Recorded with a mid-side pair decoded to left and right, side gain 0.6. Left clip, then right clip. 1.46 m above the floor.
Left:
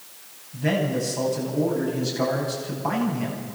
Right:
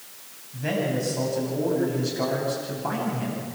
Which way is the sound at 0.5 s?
10° left.